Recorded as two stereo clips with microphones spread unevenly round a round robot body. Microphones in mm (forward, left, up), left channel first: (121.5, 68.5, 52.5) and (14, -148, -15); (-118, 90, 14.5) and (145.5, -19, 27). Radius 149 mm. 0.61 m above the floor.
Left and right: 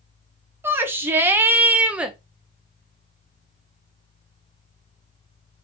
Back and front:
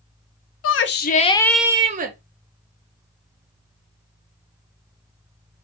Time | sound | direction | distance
0.6 | a shout | straight behind | 0.8 m